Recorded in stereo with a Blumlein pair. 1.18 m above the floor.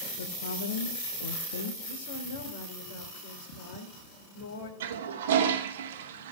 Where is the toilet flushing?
55° right, 1.0 m.